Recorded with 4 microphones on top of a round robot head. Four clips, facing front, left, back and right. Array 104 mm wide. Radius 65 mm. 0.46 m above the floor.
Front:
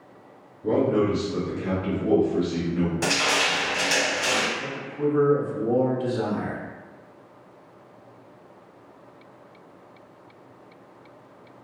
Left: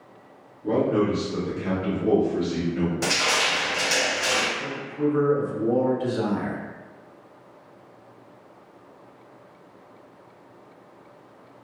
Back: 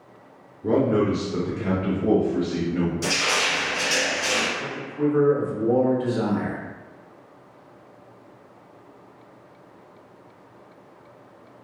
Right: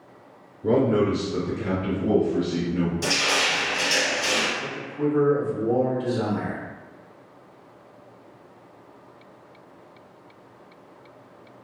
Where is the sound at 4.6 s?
150° left, 1.3 m.